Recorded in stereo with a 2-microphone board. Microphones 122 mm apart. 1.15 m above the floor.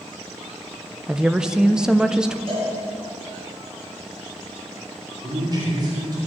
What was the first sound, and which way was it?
A woman speaking, 5° right (ahead or behind).